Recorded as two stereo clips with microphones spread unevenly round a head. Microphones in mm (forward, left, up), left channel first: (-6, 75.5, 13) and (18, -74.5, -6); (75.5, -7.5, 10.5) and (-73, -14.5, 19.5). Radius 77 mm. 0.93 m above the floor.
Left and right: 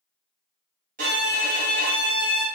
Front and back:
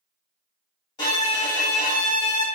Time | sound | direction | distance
1.0 | a violin | 55° right | 1.0 m